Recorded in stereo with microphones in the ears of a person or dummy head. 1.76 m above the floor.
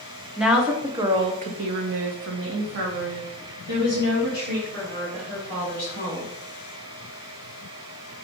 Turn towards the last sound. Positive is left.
turn(degrees=-50)  # may be behind; listen again after turning